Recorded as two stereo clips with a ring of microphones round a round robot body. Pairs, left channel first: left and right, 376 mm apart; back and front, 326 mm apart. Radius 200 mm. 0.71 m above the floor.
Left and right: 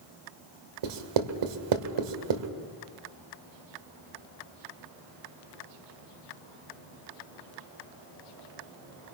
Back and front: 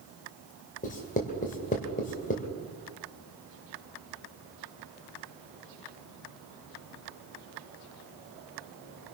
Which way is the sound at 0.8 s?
110° right.